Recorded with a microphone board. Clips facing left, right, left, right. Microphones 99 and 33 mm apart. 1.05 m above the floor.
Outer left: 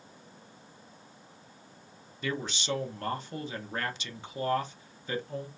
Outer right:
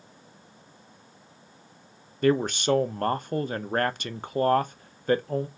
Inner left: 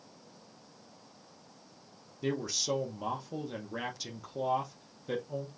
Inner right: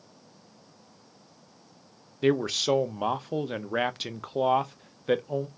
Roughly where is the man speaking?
Right.